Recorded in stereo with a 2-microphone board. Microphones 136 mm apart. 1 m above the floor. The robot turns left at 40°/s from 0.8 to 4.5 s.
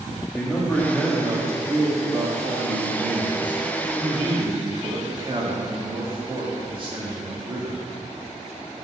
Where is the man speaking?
5° left, 1.6 m; by 7.8 s 140° right, 1.6 m.